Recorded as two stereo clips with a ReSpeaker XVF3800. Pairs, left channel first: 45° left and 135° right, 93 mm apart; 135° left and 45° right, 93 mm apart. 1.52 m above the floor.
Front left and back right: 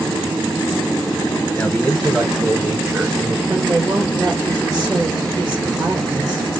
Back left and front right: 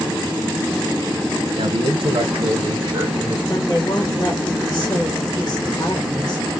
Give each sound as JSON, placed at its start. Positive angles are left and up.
{"t": 1.6, "sound": "a man speaking", "azimuth_deg": -25, "distance_m": 0.8}
{"t": 3.5, "sound": "a woman speaking", "azimuth_deg": 180, "distance_m": 1.8}